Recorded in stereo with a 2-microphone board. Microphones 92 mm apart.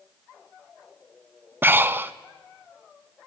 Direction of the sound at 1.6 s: 25° right (ahead or behind).